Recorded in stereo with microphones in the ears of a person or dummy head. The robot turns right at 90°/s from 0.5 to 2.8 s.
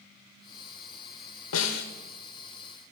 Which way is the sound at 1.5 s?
95° left.